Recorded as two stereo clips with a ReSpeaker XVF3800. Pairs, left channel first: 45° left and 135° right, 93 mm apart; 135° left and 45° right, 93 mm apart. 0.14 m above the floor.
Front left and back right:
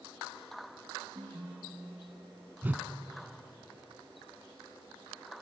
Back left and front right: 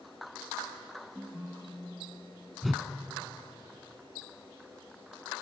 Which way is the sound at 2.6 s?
130° right.